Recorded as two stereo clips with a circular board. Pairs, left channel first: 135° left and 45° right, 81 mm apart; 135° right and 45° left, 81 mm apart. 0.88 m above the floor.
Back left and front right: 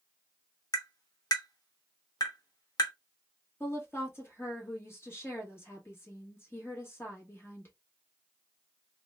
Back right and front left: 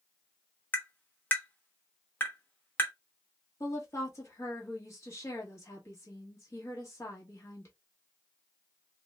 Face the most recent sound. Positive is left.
turn(degrees=-175)